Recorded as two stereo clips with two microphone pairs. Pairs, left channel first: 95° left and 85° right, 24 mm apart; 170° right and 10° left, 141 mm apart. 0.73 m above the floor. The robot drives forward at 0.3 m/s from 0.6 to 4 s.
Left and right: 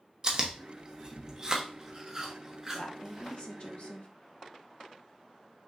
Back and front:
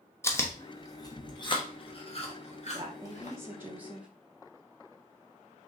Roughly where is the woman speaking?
Left.